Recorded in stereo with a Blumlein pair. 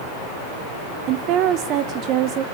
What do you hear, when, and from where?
1.1 s a woman speaking: 35° right, 0.9 m